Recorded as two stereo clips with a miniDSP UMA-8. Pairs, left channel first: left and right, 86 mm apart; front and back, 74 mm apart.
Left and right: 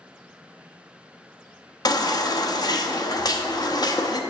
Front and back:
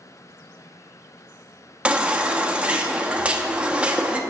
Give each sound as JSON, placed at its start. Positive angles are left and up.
{"t": 1.9, "sound": "a baby crying", "azimuth_deg": 110, "distance_m": 0.7}